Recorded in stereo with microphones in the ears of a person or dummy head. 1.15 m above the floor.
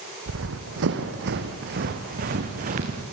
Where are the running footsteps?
65° right (ahead or behind), 3.5 m; by 3.0 s 40° right (ahead or behind), 5 m.